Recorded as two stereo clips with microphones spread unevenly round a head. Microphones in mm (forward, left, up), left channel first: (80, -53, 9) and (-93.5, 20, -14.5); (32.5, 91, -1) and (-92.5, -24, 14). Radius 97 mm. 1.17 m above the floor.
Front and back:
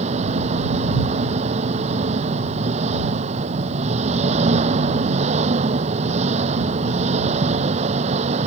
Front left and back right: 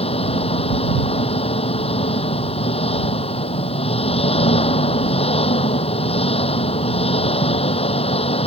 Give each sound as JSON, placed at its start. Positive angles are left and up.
{"t": 0.0, "sound": "an engine running", "azimuth_deg": 100}